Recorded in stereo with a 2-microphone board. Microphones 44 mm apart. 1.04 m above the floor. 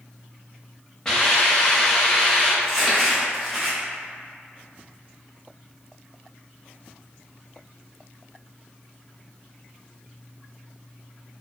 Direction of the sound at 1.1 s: 15° left (ahead or behind).